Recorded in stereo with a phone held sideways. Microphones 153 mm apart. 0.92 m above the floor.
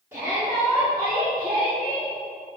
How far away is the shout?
About 1.9 m.